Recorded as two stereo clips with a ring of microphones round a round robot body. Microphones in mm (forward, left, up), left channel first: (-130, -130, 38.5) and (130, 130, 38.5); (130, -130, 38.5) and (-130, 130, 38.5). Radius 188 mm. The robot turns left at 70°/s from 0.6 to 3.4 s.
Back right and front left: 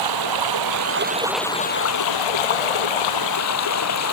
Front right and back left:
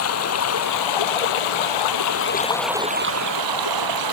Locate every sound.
0.0 s running water: 10° left; by 4.1 s 175° left